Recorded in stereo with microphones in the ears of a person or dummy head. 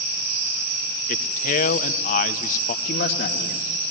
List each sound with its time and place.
1.1 s a man speaking: 45° left (ahead or behind), 0.9 m
2.9 s a man speaking: 60° left (ahead or behind), 2.5 m